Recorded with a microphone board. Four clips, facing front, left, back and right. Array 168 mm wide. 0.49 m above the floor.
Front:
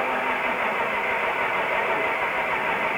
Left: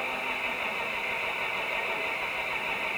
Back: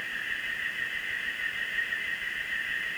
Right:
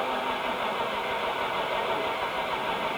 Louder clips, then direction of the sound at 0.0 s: Right 6 dB, front 13 dB; 20° right.